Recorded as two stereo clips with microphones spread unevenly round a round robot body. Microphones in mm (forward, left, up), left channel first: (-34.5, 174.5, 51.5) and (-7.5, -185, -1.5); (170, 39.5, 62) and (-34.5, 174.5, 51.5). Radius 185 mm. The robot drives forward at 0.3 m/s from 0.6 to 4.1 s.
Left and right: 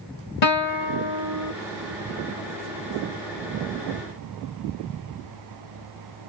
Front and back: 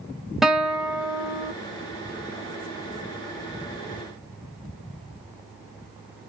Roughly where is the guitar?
Ahead left.